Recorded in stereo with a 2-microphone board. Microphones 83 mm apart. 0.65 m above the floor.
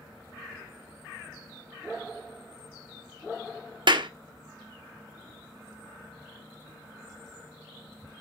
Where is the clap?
65° right (ahead or behind), 0.8 m.